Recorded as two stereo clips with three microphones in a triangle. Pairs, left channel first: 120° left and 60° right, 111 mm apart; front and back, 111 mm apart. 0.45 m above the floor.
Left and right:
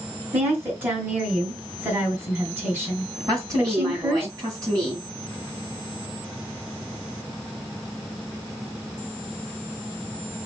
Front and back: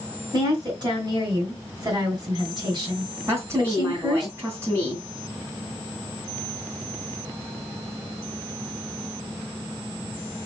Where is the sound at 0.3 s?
130° right, 3 m.